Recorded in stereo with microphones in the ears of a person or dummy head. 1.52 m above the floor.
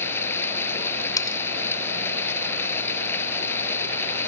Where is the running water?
15° left (ahead or behind).